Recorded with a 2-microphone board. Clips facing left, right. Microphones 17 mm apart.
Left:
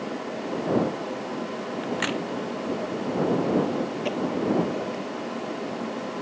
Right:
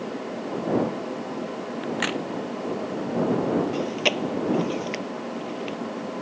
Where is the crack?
5° right (ahead or behind).